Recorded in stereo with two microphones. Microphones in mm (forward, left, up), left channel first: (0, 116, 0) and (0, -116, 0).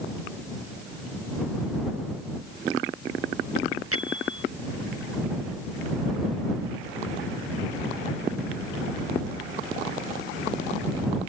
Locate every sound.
3.9 s a bell: 75° right (ahead or behind)